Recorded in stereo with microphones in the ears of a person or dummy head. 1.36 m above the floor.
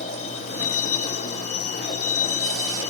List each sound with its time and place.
0.0 s a vehicle: 40° left (ahead or behind)